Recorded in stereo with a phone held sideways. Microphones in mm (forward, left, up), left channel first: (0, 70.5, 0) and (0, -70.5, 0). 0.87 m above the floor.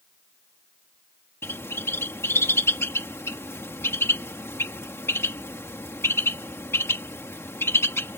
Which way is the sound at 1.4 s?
15° left (ahead or behind).